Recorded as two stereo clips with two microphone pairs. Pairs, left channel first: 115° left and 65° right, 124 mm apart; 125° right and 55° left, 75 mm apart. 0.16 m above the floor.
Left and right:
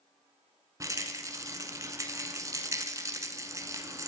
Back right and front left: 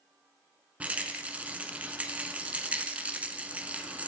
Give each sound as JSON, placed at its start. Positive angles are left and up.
{"t": 0.8, "sound": "a rattle", "azimuth_deg": -10, "distance_m": 1.1}